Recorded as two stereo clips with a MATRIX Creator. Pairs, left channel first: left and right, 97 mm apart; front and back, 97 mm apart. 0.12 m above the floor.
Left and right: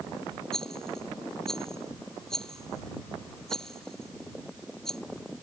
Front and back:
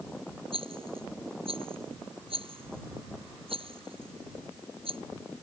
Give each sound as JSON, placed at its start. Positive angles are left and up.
{"t": 0.5, "sound": "a rattle", "azimuth_deg": 175}